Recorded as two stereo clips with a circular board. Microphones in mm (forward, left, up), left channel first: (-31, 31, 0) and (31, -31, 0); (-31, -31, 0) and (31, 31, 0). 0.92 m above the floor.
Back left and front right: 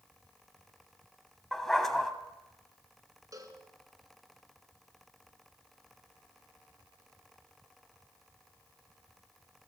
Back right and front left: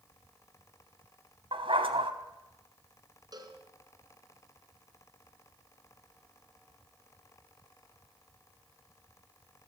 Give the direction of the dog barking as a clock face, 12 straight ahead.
10 o'clock.